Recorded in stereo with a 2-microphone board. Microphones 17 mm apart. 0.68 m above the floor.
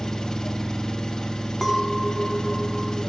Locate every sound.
0.0 s an engine running: 40° left (ahead or behind), 4 m
1.6 s a clink: centre (ahead or behind), 5 m